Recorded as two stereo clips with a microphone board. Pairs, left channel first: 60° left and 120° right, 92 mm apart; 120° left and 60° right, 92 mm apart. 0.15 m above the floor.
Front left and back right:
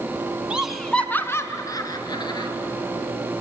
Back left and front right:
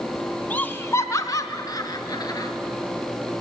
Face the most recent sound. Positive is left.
turn(degrees=80)